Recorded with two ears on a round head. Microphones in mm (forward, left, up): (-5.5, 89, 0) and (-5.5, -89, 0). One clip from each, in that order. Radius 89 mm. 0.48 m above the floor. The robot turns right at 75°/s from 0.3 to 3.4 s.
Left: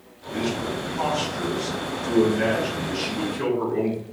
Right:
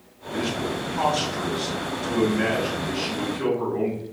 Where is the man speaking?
175° right, 3 m; by 4.0 s 55° left, 3 m.